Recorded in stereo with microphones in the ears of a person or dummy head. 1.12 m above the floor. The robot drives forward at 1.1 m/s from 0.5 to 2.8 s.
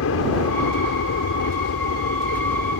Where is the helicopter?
70° left (ahead or behind).